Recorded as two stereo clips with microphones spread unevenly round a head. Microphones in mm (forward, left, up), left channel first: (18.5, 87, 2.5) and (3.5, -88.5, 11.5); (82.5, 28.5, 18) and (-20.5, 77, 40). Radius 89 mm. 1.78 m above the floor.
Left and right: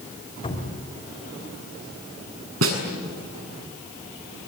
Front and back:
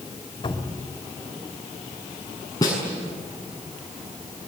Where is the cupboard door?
25° left, 4 m.